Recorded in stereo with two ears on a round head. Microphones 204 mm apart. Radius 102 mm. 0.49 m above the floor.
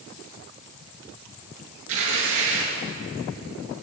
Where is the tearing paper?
60° right (ahead or behind), 7.5 m.